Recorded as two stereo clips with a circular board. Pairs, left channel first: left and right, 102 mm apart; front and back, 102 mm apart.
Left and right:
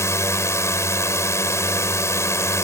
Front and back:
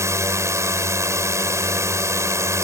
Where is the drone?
135° left.